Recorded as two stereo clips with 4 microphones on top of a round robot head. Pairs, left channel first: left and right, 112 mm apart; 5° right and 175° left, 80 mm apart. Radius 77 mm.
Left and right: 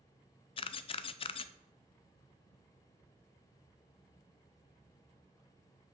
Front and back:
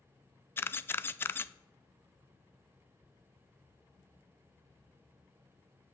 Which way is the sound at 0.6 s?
55° left.